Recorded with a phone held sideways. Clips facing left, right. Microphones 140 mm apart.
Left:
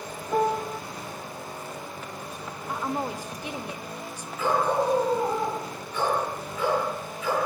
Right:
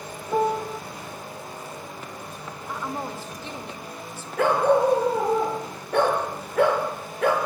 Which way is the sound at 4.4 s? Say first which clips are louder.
Right 5 dB; 65° right (ahead or behind).